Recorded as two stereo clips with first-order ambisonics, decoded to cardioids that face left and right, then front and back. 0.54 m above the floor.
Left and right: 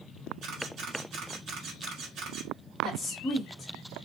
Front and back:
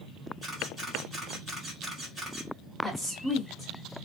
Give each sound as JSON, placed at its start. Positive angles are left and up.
{"t": 0.4, "sound": "a camera shutter", "azimuth_deg": -110, "distance_m": 1.4}
{"t": 2.8, "sound": "a woman speaking", "azimuth_deg": 75, "distance_m": 1.1}